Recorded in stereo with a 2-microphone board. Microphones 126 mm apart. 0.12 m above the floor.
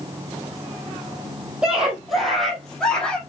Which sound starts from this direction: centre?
A scream, at 1.6 s.